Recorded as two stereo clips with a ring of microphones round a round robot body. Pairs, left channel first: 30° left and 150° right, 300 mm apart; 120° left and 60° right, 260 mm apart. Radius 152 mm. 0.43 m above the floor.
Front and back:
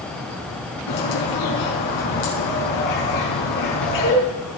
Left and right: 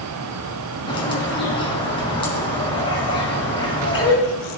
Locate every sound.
0.9 s a bird: 50° left, 5 m